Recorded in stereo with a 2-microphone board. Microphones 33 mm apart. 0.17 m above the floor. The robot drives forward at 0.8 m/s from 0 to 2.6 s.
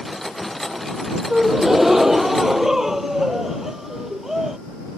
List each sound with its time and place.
1.3 s a gasp: 10° right (ahead or behind); by 4.6 s 15° right (ahead or behind)